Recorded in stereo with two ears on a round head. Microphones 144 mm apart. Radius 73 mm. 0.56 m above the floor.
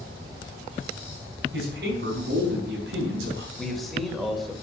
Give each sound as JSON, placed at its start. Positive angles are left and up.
{"t": 1.5, "sound": "a man speaking", "side_deg": -70, "distance_m": 4.5}
{"t": 3.6, "sound": "a man speaking", "side_deg": 0, "distance_m": 2.5}